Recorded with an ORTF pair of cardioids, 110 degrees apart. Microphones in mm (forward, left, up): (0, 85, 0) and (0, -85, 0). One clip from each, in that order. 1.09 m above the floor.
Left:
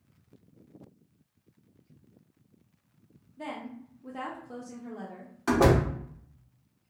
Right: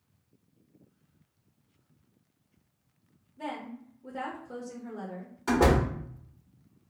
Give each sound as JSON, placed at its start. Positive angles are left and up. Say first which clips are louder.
{"t": 3.4, "sound": "a woman speaking", "louder": "right 1 dB", "azimuth_deg": 5, "distance_m": 0.8}
{"t": 5.5, "sound": "a door slam", "louder": "left 1 dB", "azimuth_deg": 15, "distance_m": 0.9}